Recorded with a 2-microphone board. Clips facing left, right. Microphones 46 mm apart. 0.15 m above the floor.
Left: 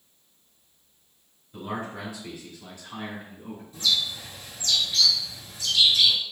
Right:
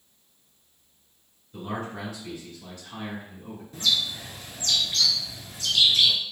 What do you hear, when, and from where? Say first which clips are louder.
1.5 s a man speaking: even; 15° left (ahead or behind), 1.4 m; by 3.6 s 25° left (ahead or behind), 1.4 m
3.7 s a bird: even; 50° right (ahead or behind), 0.8 m